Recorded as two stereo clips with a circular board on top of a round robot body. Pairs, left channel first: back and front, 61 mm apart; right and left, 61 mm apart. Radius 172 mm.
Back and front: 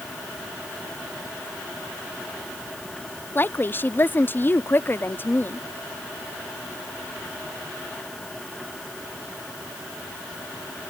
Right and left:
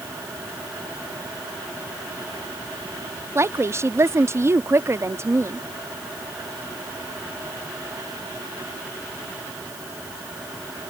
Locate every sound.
3.4 s a woman speaking: 130° left